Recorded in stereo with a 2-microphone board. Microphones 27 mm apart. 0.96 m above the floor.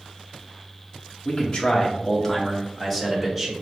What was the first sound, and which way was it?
A man speaking, 45° left (ahead or behind).